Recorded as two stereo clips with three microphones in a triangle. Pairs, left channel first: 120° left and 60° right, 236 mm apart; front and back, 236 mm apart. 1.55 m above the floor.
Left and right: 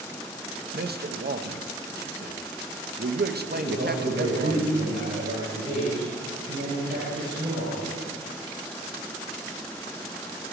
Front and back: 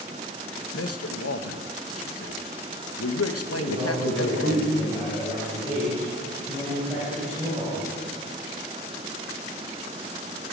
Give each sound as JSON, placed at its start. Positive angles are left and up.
{"t": 0.7, "sound": "a man speaking", "azimuth_deg": -10, "distance_m": 0.8}
{"t": 3.5, "sound": "a man speaking", "azimuth_deg": -100, "distance_m": 6.5}